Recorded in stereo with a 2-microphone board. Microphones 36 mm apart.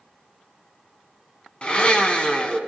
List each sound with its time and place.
1.6 s a blender: 30° left (ahead or behind), 1.5 m